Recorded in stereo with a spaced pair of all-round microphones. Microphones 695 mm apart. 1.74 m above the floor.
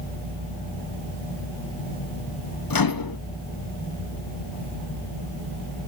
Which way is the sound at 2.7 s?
35° left (ahead or behind).